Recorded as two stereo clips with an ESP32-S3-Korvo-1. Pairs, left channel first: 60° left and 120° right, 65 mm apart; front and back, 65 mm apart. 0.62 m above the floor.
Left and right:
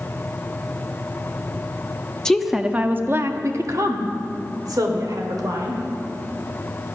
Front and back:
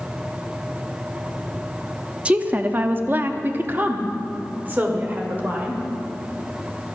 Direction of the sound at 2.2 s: 130° left.